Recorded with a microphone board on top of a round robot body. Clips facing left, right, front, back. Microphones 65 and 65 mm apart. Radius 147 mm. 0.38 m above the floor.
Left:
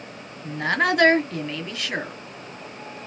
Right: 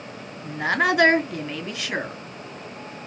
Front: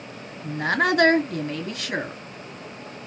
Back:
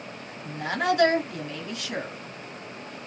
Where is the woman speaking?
Straight ahead, 1.3 m.